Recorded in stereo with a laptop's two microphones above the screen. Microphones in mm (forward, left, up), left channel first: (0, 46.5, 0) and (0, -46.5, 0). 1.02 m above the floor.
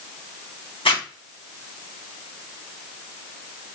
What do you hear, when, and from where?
0.8 s a zipper: 70° left (ahead or behind), 1.1 m